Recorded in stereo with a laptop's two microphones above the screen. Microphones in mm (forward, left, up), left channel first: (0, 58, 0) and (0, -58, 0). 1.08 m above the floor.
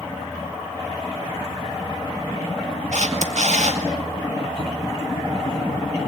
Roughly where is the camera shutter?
Right.